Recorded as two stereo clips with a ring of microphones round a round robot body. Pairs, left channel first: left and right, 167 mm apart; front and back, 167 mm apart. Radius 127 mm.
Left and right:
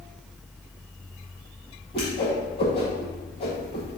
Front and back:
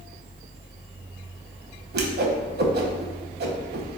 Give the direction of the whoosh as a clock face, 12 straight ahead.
7 o'clock.